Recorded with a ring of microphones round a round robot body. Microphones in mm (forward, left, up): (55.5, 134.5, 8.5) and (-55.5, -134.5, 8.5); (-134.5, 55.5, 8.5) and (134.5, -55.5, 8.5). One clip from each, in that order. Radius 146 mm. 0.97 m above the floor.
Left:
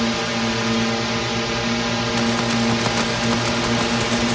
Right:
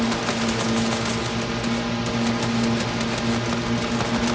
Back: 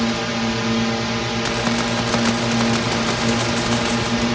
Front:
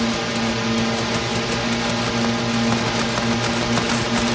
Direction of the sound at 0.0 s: 60° left.